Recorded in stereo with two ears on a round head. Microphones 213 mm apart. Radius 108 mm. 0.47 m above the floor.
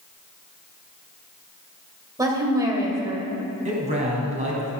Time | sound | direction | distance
2.2 | a woman speaking | 15° right (ahead or behind) | 2.5 m
3.6 | a man speaking | 35° right (ahead or behind) | 3 m